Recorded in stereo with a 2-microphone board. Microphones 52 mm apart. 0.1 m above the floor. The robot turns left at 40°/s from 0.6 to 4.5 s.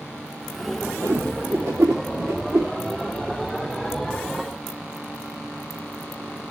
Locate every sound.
1.0 s a whoosh: 45° right (ahead or behind), 2 m; by 2.7 s 65° right (ahead or behind), 2 m